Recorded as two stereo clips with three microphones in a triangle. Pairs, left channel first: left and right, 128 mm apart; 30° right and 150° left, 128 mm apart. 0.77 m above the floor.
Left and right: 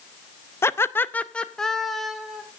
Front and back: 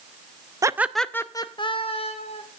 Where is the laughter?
130° left, 0.5 m; by 2.4 s straight ahead, 1.3 m.